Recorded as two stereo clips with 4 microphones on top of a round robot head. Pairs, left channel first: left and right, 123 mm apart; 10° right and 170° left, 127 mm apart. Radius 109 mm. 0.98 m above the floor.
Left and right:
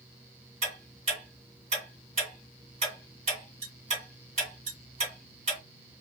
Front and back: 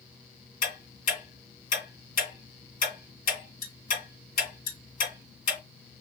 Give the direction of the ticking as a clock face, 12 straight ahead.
1 o'clock.